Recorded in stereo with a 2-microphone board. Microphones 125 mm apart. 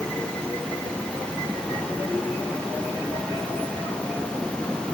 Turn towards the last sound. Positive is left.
No sound to turn to.